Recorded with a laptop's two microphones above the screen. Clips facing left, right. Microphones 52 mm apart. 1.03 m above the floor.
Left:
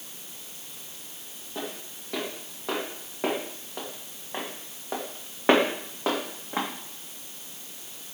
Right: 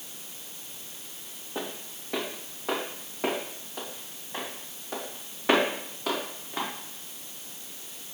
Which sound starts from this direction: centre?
Footsteps, at 1.6 s.